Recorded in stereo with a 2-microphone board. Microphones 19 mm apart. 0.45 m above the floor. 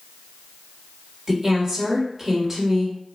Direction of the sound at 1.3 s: 25° right (ahead or behind).